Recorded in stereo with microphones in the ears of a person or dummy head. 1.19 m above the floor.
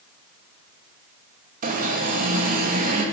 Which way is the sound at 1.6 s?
40° right (ahead or behind).